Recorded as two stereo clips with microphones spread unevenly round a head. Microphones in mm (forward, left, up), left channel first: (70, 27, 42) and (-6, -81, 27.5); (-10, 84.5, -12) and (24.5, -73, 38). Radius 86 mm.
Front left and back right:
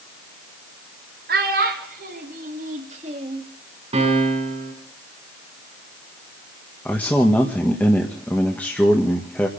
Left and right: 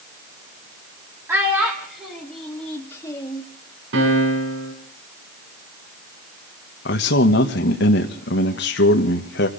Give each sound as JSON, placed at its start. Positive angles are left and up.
{"t": 1.3, "sound": "a child speaking", "azimuth_deg": -150, "distance_m": 3.5}
{"t": 3.9, "sound": "a piano", "azimuth_deg": -75, "distance_m": 7.0}
{"t": 6.8, "sound": "a man speaking", "azimuth_deg": 135, "distance_m": 1.7}